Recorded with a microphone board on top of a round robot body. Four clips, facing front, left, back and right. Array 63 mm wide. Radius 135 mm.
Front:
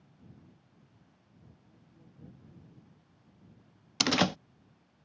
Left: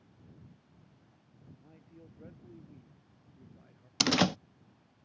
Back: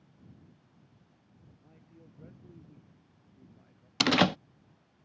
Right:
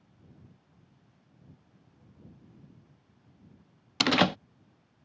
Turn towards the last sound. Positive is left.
turn(degrees=-115)